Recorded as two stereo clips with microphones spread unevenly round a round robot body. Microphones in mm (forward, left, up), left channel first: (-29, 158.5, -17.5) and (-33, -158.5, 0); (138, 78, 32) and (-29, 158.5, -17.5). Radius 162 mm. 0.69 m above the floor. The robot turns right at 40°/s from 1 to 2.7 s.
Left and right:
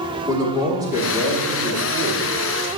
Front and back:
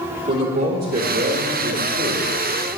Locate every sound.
0.3 s a man speaking: 170° right, 1.3 m; by 2.7 s 105° right, 1.3 m